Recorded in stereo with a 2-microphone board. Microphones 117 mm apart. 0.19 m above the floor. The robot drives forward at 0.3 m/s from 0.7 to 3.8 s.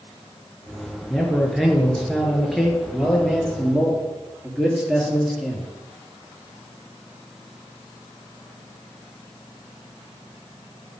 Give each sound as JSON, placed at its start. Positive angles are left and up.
{"t": 1.1, "sound": "a man speaking", "side_deg": 0, "distance_m": 3.0}